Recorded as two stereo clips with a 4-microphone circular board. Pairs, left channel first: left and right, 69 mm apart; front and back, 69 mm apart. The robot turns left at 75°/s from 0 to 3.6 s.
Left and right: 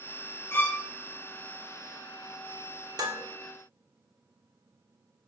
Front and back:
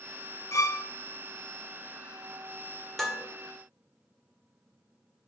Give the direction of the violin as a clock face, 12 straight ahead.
11 o'clock.